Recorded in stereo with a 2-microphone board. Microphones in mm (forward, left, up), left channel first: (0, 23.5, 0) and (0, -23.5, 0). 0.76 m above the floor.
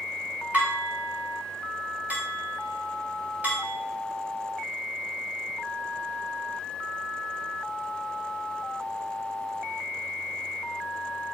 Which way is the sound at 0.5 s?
35° right (ahead or behind).